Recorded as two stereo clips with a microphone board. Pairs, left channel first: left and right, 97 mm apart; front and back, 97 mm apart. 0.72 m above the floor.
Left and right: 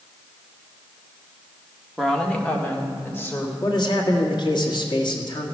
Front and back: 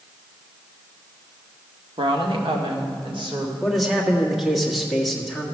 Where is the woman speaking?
Straight behind, 1.3 m; by 3.5 s 155° left, 2.5 m.